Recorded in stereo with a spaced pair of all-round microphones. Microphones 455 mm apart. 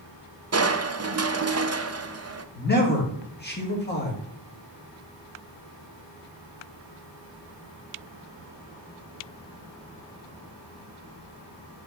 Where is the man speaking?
20° left (ahead or behind), 2 m.